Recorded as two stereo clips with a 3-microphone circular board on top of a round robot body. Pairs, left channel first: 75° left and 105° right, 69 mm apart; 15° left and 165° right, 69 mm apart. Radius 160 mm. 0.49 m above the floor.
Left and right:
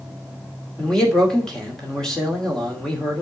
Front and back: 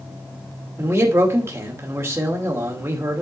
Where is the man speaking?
155° left, 2.5 m.